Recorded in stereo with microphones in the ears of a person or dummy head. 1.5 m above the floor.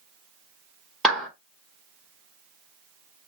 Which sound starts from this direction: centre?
A clap, at 1.0 s.